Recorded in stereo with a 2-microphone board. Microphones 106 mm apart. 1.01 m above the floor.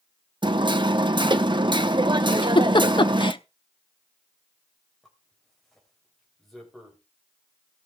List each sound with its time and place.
0.4 s hammering: 45° right (ahead or behind), 0.8 m
2.3 s a giggle: 50° left (ahead or behind), 0.8 m
5.0 s a zipper: 5° left (ahead or behind), 3.5 m